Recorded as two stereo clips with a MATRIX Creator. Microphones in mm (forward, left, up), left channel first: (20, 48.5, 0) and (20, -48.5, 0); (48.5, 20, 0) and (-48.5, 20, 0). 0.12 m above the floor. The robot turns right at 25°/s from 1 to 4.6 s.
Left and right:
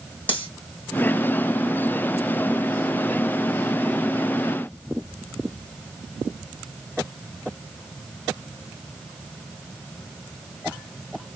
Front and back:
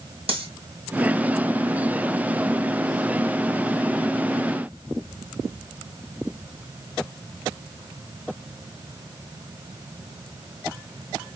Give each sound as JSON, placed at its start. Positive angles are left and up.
{"t": 0.3, "sound": "cutlery clinking", "azimuth_deg": 165, "distance_m": 3.0}